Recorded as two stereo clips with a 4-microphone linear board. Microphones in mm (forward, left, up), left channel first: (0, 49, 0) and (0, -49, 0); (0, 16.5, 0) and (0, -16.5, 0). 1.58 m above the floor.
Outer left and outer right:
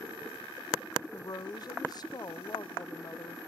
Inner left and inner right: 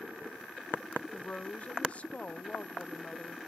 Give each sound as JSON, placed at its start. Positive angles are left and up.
{"t": 1.1, "sound": "a woman speaking", "side_deg": 40, "distance_m": 0.7}